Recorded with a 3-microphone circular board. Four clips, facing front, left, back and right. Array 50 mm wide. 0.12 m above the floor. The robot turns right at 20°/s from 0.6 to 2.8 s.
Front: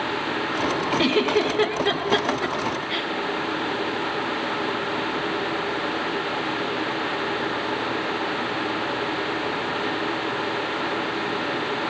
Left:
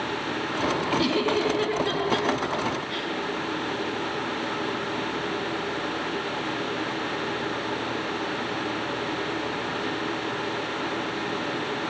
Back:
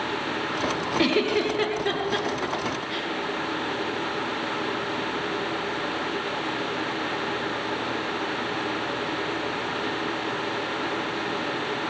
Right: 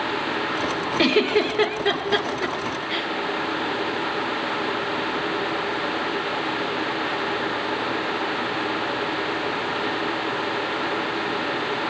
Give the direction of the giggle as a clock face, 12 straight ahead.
3 o'clock.